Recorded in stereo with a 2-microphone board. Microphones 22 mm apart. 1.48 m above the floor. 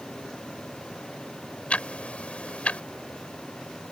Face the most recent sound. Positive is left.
turn(degrees=65)  # may be behind; listen again after turning